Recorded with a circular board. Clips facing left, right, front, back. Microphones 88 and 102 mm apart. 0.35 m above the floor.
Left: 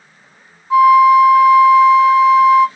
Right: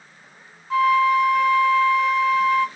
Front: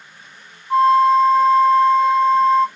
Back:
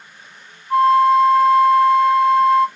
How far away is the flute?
About 0.9 m.